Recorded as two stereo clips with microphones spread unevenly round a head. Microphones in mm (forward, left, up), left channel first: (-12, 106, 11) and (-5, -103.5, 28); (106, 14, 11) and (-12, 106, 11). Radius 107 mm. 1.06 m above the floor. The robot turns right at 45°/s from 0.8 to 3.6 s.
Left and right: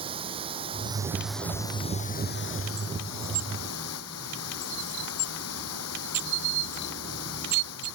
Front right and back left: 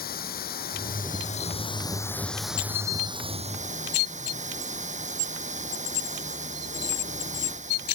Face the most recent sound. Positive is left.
turn(degrees=105)